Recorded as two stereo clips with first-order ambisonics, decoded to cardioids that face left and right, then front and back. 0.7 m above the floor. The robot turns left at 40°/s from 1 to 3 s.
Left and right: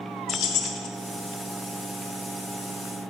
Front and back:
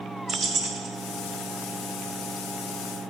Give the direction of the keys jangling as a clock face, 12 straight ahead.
8 o'clock.